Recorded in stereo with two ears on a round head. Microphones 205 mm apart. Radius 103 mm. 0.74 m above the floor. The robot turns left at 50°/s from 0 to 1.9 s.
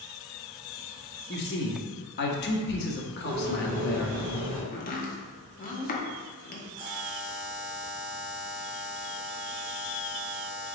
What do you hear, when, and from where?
1.3 s a man speaking: 105° left, 0.8 m; by 4.2 s 75° left, 0.8 m
3.2 s a bird: 35° right (ahead or behind), 1.7 m
4.7 s chopping: 35° left (ahead or behind), 0.8 m
6.8 s a buzzer: 30° right (ahead or behind), 1.7 m